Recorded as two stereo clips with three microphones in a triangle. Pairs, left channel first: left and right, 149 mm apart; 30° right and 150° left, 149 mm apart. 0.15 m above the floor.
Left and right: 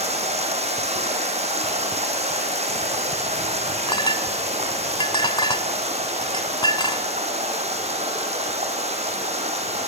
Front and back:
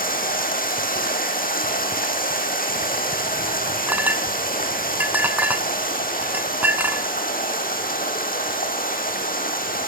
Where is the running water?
45° right, 2.5 m.